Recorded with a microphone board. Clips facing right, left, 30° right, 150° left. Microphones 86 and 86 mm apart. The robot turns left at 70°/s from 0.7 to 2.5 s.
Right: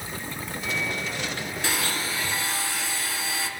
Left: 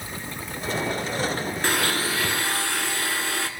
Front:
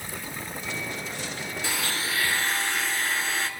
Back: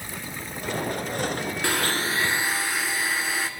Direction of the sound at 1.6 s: 130° left.